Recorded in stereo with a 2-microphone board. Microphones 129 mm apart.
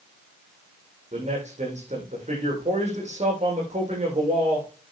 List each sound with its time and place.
1.1 s a man speaking: 60° right (ahead or behind), 7 m